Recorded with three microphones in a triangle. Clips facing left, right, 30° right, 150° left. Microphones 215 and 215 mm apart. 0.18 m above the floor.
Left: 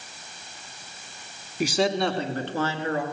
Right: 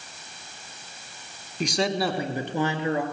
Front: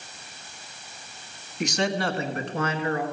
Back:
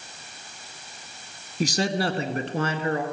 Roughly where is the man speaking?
Behind.